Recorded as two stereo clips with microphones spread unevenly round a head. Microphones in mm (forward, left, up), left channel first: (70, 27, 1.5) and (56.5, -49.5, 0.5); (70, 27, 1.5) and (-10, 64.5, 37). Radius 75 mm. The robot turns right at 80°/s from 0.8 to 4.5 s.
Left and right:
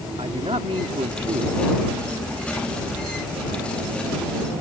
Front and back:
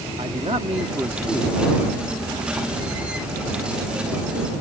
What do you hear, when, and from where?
0.2 s a man speaking: 150° right; by 1.6 s 90° right